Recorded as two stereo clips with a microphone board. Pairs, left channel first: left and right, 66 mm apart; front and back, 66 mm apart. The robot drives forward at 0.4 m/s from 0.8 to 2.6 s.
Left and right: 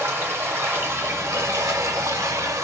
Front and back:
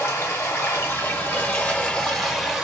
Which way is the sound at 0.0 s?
45° right.